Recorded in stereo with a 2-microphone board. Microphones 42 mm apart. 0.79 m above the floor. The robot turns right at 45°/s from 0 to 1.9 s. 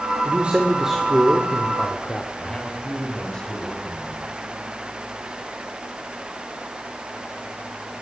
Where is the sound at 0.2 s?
40° right, 2.5 m; by 2.3 s 30° left, 2.5 m.